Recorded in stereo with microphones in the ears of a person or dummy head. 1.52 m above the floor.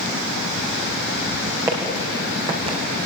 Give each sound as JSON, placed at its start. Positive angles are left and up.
{"t": 1.7, "sound": "footsteps", "side_deg": -10, "distance_m": 6.0}